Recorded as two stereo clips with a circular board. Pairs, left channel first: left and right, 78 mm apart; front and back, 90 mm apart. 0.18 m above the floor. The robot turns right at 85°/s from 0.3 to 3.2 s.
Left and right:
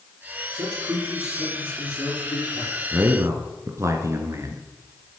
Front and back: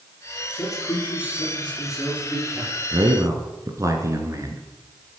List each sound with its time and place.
0.5 s a man speaking: 65° right, 5.5 m; by 2.8 s 130° left, 5.5 m
2.9 s a man speaking: 160° right, 2.5 m; by 5.2 s 135° right, 2.5 m